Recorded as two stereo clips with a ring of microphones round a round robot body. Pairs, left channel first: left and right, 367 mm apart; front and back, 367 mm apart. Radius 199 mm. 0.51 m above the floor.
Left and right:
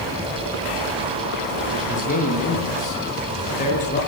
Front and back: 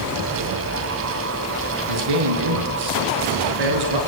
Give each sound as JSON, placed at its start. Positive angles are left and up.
{"t": 1.9, "sound": "a man speaking", "azimuth_deg": 160, "distance_m": 6.0}